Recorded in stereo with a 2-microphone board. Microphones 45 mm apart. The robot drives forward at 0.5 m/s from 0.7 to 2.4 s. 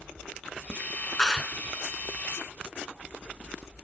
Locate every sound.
1.2 s a clap: 15° left (ahead or behind)